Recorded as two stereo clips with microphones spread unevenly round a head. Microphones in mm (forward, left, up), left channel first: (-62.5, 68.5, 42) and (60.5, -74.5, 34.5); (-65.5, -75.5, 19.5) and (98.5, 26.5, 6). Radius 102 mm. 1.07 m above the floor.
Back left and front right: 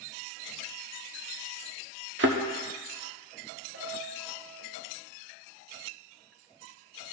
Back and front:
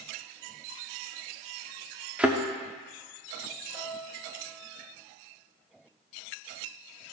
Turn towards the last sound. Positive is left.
turn(degrees=-45)